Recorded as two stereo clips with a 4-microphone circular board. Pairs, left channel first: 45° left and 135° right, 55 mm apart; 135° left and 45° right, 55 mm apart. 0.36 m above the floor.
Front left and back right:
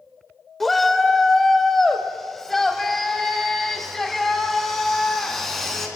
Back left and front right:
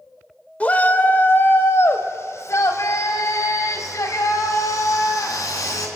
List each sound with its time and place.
0.6 s a shout: 125° left, 1.2 m; by 5.9 s 130° left, 4 m